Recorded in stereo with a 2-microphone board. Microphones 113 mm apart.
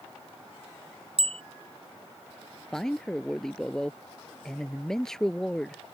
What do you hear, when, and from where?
1.2 s a bicycle bell: 60° right (ahead or behind)
2.7 s a man speaking: 5° left (ahead or behind)